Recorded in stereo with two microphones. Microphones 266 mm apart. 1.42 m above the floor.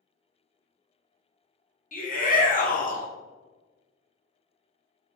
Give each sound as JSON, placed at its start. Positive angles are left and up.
{"t": 1.9, "sound": "a shout", "side_deg": 30, "distance_m": 0.7}